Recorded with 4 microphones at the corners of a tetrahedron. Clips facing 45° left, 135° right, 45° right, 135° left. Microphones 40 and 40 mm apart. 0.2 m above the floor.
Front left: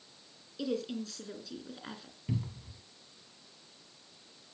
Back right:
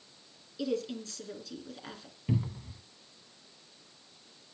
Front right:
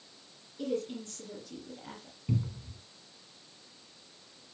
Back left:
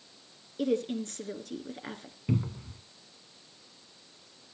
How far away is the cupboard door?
About 0.7 m.